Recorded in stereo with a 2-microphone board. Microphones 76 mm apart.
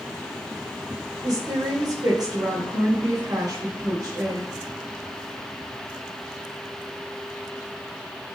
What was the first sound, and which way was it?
A woman speaking, 60° right (ahead or behind).